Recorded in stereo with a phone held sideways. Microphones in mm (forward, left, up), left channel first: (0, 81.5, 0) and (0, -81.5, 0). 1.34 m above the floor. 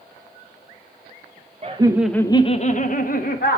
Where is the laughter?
40° right (ahead or behind), 0.6 m; by 3.6 s 65° left (ahead or behind), 1.5 m.